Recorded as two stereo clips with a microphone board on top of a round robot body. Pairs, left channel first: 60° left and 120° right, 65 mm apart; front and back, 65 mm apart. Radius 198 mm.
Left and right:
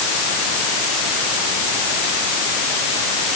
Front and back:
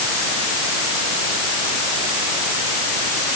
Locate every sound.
Only background noise.